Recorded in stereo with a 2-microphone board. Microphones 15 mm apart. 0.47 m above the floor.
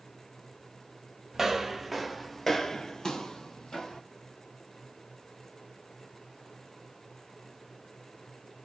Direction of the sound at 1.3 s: 25° right (ahead or behind).